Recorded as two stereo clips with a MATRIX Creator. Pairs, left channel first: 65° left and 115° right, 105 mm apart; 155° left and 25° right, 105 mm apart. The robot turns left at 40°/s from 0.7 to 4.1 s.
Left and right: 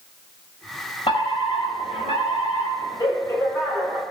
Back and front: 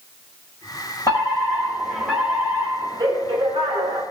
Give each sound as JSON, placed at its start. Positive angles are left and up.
{"t": 1.1, "sound": "a fire alarm", "azimuth_deg": 105, "distance_m": 6.5}